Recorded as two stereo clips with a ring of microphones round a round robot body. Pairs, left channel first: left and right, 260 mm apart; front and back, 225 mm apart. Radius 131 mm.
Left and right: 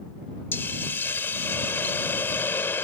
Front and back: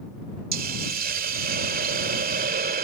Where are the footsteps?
No footsteps in this recording.